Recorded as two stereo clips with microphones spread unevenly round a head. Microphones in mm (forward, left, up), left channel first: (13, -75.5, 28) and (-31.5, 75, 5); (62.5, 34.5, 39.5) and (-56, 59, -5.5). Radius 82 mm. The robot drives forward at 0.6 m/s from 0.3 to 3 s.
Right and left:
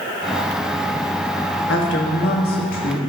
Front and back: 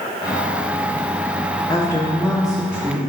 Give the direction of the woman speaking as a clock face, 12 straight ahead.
3 o'clock.